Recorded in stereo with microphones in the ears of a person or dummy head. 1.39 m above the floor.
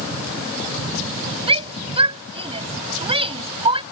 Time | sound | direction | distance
1.5 | a shout | 25° right (ahead or behind) | ?